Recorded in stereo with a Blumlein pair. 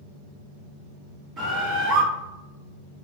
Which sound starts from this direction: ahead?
A bird, at 1.4 s.